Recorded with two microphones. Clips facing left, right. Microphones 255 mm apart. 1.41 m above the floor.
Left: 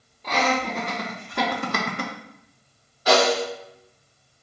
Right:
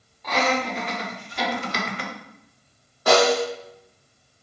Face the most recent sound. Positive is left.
turn(degrees=-55)  # may be behind; listen again after turning